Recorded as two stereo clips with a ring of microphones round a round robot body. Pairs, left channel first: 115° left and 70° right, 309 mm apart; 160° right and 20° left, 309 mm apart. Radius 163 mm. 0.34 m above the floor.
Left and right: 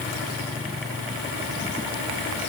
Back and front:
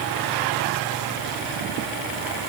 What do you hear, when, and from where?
Only background noise.